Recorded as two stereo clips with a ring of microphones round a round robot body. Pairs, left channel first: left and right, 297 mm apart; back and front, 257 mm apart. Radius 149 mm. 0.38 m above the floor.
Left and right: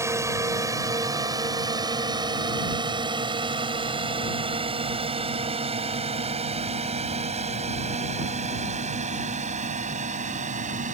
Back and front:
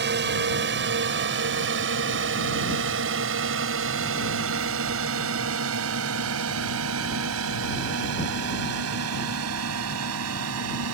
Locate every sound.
0.0 s a drone: 15° right; by 10.9 s 25° right